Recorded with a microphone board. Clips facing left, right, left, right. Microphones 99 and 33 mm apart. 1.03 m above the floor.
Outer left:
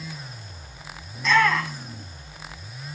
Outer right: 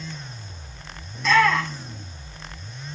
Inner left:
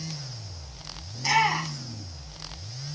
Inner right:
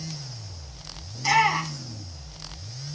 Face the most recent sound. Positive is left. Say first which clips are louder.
# outer right 2 dB, inner right 2 dB
turn(degrees=0)  # may be behind; listen again after turning